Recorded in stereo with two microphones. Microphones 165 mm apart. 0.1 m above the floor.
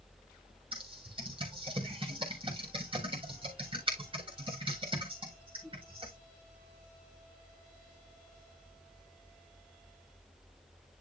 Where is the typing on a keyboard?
30° right (ahead or behind), 3.5 m.